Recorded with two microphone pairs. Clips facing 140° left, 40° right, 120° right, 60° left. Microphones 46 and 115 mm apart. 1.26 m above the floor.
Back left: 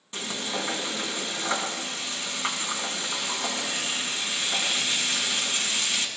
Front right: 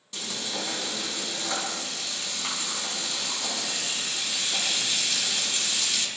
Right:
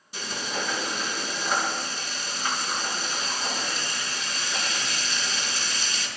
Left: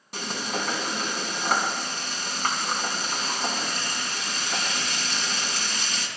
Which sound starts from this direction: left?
Frying, at 0.1 s.